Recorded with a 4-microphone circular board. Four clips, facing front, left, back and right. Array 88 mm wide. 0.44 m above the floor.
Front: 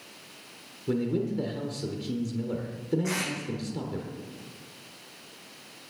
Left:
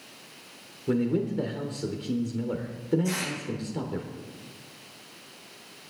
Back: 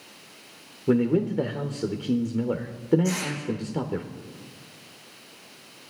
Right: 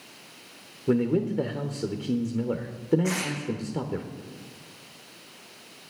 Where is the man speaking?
155° right, 1.1 m.